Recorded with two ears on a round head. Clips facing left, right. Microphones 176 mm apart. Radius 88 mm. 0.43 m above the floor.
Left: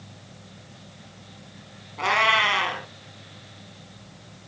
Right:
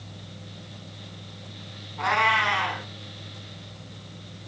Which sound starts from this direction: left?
A cat meowing, at 2.0 s.